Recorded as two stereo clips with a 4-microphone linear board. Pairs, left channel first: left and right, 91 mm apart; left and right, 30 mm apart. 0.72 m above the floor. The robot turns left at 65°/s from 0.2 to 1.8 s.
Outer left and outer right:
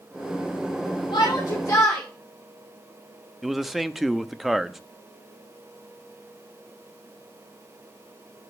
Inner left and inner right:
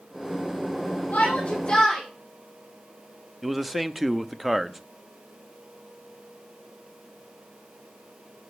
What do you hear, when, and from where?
1.1 s a shout: 85° left, 3 m; by 2.0 s 40° left, 3 m
3.4 s a man speaking: centre (ahead or behind), 0.6 m